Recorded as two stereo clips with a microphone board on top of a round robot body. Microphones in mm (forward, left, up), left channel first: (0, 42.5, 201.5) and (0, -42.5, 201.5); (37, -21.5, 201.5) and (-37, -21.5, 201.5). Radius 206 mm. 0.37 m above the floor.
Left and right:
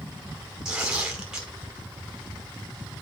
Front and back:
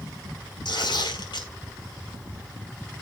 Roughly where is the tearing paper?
Ahead.